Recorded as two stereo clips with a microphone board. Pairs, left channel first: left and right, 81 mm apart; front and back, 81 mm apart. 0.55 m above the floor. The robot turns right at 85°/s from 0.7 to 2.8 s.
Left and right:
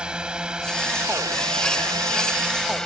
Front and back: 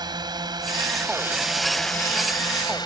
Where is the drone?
165° right; by 2.9 s 5° left.